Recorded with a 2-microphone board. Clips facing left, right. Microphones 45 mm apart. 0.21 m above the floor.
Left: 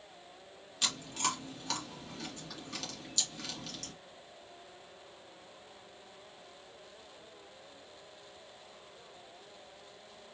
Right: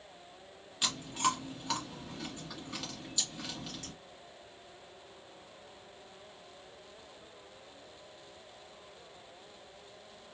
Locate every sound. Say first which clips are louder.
0.8 s chewing: right 3 dB; 10° right (ahead or behind), 2 m